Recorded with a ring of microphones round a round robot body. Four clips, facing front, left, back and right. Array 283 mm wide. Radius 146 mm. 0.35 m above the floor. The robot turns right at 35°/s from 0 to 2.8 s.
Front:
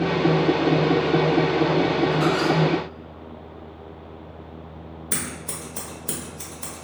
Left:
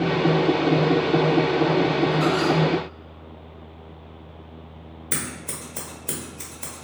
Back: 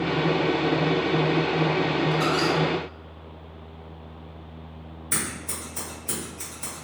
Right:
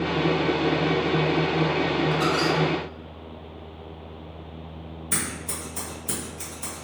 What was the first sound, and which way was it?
A squeak, 120° right.